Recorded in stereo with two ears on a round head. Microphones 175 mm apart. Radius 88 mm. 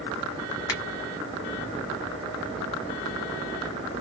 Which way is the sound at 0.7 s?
15° left (ahead or behind).